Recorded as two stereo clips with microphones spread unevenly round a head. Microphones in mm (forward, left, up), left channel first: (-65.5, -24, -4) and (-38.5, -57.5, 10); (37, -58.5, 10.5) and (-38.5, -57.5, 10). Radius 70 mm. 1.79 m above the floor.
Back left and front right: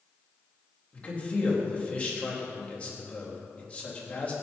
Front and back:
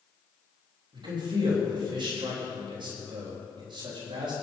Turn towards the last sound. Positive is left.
turn(degrees=-170)